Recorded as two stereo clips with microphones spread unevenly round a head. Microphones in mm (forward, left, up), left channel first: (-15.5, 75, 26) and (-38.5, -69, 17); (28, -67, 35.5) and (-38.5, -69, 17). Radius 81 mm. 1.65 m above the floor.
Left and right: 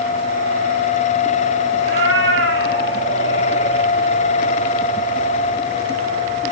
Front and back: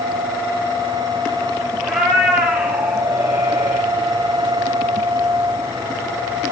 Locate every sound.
1.8 s a cat meowing: 85° right, 5 m; by 3.9 s 105° right, 5.5 m